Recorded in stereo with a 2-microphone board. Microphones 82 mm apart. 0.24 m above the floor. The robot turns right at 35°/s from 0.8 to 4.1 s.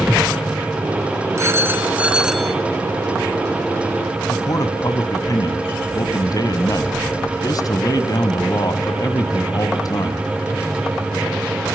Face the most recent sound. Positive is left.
turn(degrees=50)  # may be behind; listen again after turning